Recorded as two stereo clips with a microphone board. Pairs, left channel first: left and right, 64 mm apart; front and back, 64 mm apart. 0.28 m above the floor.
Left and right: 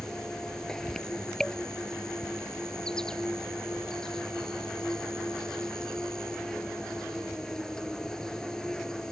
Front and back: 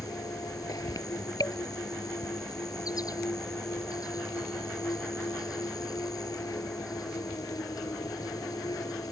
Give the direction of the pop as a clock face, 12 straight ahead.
No pop in this recording.